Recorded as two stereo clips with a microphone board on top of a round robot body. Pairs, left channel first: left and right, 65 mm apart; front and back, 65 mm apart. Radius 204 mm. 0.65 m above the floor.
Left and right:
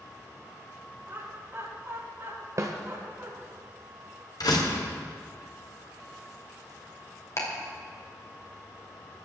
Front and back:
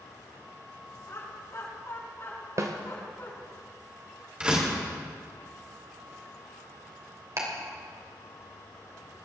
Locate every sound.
1.1 s laughter: 35° right, 7 m; by 3.3 s 40° right, 8 m
2.6 s a snare drum: 140° right, 0.8 m
4.4 s a door slam: 105° left, 2 m
7.4 s ticking: 135° left, 3 m